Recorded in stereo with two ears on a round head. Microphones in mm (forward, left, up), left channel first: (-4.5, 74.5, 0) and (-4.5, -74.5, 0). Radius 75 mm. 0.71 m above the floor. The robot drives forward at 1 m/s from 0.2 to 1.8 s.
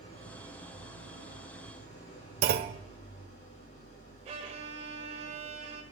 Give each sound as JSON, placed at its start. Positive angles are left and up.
{"t": 0.0, "sound": "an engine running", "side_deg": 35, "distance_m": 8.0}
{"t": 2.4, "sound": "a clunk", "side_deg": -65, "distance_m": 0.7}
{"t": 4.2, "sound": "a violin", "side_deg": -40, "distance_m": 1.3}